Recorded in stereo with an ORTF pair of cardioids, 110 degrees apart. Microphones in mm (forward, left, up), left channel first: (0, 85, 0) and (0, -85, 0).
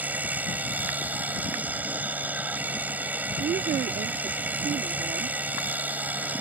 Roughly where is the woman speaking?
Ahead right.